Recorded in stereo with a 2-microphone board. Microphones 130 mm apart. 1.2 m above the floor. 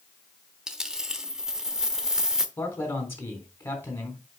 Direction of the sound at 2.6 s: 20° left (ahead or behind).